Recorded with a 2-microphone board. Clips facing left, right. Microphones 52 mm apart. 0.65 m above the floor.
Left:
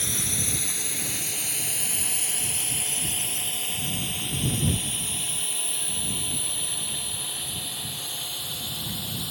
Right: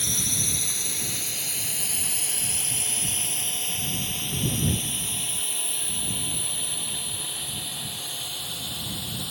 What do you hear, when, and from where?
0.0 s a drone: 15° left (ahead or behind); by 9.3 s 5° right (ahead or behind)